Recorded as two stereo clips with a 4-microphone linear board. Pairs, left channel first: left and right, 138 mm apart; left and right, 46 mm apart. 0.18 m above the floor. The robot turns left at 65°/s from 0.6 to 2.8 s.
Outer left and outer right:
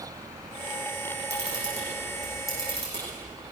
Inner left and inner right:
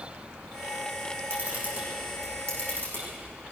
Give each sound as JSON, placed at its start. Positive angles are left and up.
{"t": 1.3, "sound": "a camera shutter", "side_deg": -55, "distance_m": 9.5}